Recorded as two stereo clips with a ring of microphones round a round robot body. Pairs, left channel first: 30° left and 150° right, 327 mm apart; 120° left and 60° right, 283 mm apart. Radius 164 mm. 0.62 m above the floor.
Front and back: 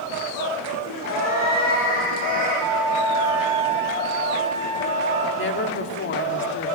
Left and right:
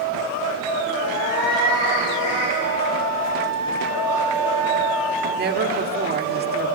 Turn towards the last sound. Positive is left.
turn(degrees=-15)